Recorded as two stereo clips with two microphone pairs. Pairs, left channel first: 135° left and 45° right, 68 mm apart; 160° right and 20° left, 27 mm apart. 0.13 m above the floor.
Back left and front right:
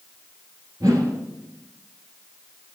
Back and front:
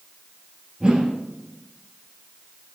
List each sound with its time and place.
0.8 s a whoosh: 35° right, 1.8 m